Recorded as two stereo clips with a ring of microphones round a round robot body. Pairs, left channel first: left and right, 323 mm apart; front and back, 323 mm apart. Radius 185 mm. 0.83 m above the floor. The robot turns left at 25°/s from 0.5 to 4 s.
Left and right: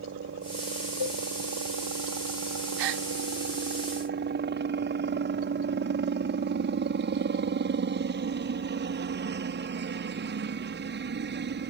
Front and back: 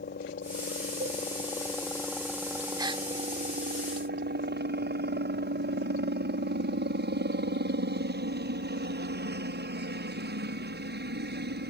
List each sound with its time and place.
0.0 s a helicopter: 45° right; by 11.7 s 135° right
1.0 s a cowbell: 105° left; by 1.2 s 100° left
2.8 s a gasp: 100° right; by 3.0 s 105° right